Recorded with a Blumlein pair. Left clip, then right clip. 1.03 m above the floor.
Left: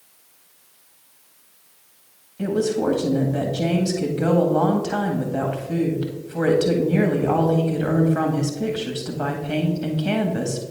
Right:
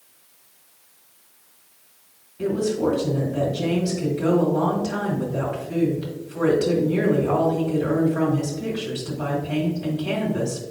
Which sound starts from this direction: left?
A woman speaking, at 2.4 s.